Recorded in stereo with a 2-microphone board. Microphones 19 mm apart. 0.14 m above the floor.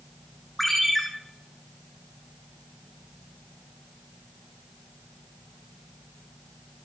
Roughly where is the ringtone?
Centre.